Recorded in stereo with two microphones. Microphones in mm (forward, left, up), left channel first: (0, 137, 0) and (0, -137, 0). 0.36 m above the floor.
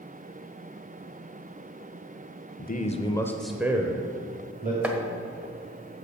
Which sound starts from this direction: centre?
Chopping, at 4.8 s.